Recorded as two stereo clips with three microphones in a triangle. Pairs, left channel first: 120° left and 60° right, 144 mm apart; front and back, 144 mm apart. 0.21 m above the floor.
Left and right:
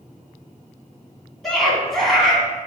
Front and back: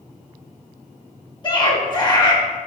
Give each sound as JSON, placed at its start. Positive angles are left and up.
{"t": 1.4, "sound": "a scream", "azimuth_deg": 30, "distance_m": 2.0}